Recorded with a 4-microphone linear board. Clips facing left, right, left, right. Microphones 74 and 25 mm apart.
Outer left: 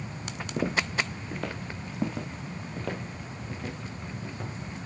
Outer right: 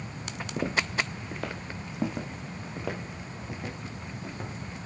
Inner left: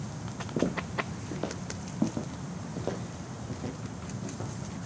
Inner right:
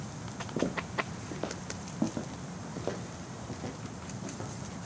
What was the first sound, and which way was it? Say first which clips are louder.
Footsteps: outer left 1 dB, inner left 2 dB; 5° left (ahead or behind).